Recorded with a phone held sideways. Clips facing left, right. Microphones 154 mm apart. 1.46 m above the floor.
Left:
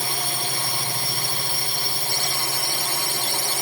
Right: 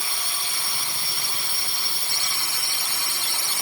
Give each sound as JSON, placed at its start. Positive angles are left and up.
{"t": 0.0, "sound": "a drone", "side_deg": 55}